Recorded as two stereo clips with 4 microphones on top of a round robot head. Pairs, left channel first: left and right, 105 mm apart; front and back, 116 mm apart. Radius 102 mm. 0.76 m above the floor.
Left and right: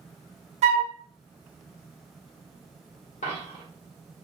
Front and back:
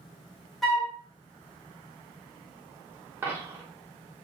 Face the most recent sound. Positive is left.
turn(degrees=105)